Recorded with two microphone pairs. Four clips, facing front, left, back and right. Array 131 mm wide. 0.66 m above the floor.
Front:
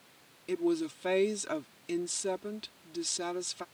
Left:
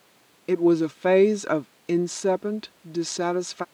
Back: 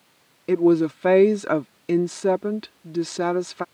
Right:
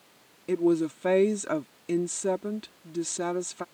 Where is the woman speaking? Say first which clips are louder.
Left 4 dB, back 13 dB; 150° left.